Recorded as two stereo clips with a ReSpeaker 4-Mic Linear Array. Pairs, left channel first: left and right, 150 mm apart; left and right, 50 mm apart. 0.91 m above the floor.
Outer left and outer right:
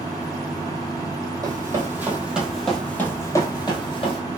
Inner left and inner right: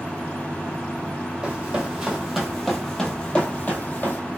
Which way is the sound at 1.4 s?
20° right (ahead or behind).